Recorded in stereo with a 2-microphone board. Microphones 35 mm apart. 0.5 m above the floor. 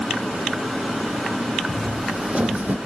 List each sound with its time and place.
1.7 s footsteps: 5° right (ahead or behind), 1.4 m; by 2.8 s 60° right (ahead or behind), 0.9 m